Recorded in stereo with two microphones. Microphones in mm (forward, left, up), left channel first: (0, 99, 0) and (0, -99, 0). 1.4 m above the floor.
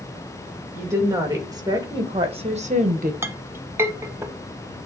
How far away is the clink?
About 0.7 m.